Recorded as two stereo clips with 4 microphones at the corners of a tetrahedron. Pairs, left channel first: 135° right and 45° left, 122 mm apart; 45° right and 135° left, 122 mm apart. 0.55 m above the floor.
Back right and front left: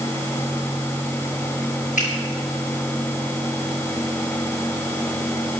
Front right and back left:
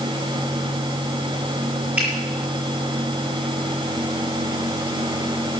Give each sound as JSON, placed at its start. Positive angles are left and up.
{"t": 2.0, "sound": "a finger snap", "azimuth_deg": -145, "distance_m": 7.5}